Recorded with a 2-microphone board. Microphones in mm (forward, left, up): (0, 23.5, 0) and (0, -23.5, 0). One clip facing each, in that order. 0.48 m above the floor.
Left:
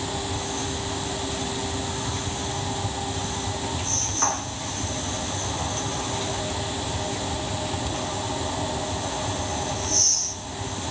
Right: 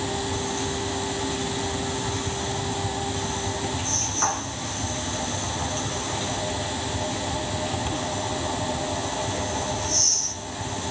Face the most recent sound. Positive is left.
No sound to turn to.